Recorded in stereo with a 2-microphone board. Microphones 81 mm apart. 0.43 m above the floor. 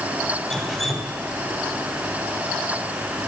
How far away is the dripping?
About 2.5 m.